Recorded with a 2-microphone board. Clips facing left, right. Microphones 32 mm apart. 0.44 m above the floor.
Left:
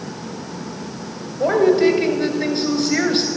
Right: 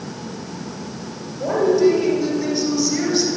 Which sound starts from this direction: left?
A woman speaking, at 1.4 s.